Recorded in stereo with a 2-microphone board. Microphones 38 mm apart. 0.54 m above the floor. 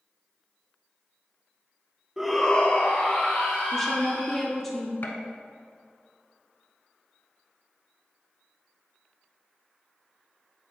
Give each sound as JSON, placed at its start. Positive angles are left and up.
{"t": 2.2, "sound": "a shout", "side_deg": -10, "distance_m": 0.8}
{"t": 3.7, "sound": "a woman speaking", "side_deg": 10, "distance_m": 0.8}
{"t": 5.0, "sound": "a gunshot", "side_deg": 55, "distance_m": 0.8}